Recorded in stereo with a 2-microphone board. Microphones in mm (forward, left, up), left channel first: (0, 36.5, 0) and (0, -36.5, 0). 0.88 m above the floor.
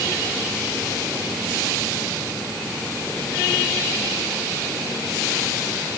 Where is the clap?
I don't hear a clap.